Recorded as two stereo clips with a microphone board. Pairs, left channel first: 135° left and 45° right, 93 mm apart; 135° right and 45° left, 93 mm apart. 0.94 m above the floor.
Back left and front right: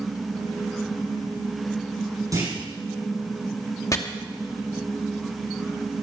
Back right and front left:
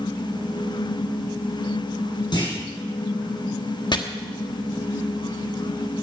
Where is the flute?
No flute in this recording.